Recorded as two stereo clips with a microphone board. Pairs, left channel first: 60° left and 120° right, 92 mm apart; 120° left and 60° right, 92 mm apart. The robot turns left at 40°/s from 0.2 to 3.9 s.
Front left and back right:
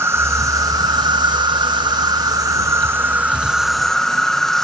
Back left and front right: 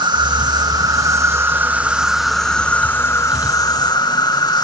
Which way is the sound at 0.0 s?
65° right.